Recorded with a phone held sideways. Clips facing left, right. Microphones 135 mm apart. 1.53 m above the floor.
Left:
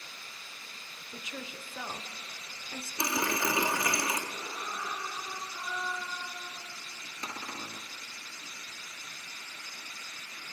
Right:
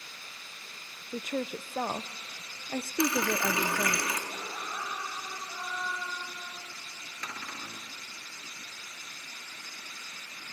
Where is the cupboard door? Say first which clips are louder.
Left 2 dB; 25° left (ahead or behind), 1.0 m.